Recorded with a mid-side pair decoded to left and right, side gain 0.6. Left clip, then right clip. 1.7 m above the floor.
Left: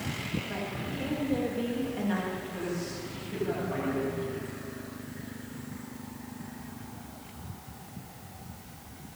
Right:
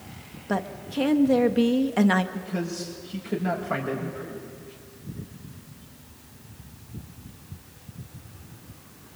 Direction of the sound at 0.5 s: 65° right.